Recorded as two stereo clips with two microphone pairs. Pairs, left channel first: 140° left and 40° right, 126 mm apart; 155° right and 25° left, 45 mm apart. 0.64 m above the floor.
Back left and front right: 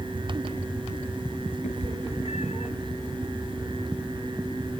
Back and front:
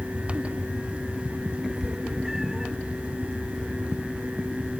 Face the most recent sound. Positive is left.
turn(degrees=105)